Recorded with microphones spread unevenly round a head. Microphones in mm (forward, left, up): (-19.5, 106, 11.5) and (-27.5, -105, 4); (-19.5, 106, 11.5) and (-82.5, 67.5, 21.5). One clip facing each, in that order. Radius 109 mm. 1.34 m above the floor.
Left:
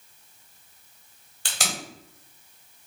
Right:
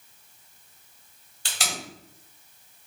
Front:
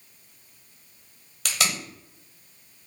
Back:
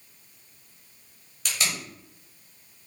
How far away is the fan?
No fan in this recording.